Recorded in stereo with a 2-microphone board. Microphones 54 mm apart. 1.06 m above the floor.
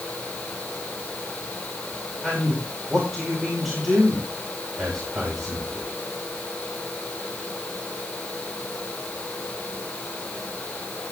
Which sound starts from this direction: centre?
A man speaking, at 2.2 s.